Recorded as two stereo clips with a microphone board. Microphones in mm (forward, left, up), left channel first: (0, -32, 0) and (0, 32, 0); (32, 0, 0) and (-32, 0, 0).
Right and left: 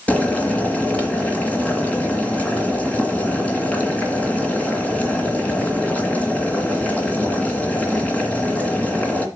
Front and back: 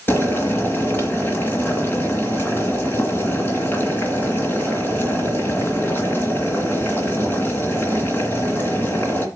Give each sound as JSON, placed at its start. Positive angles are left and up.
{"t": 0.1, "sound": "boiling", "azimuth_deg": -35, "distance_m": 2.0}